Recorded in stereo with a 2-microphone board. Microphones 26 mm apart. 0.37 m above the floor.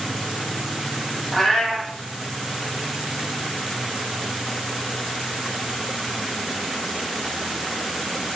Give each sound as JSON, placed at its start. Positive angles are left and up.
{"t": 1.3, "sound": "a cat meowing", "side_deg": 15, "distance_m": 1.2}